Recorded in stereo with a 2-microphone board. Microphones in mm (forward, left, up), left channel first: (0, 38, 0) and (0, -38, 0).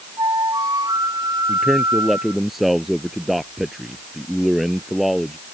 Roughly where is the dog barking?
I don't hear a dog barking.